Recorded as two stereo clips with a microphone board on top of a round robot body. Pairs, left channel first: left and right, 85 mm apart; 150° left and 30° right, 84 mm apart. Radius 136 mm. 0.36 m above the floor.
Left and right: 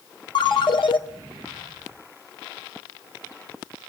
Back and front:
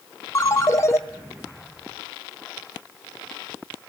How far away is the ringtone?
About 1.4 m.